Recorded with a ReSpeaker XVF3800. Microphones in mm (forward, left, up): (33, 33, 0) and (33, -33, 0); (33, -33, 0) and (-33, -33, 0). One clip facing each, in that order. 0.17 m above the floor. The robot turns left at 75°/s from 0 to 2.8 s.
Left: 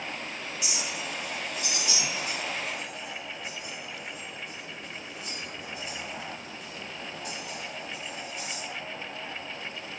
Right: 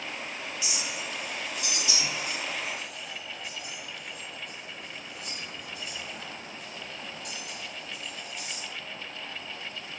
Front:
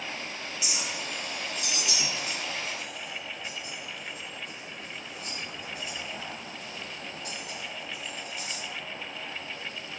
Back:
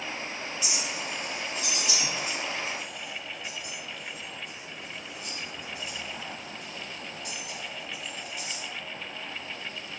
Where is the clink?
75° left, 1.6 m; by 8.6 s 90° right, 1.6 m.